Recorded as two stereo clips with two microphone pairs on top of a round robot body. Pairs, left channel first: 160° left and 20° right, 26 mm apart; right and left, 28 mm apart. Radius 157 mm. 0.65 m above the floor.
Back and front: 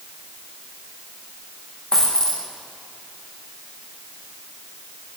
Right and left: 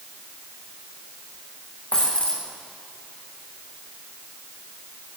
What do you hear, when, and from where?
1.9 s a dropped coin: 140° right, 7 m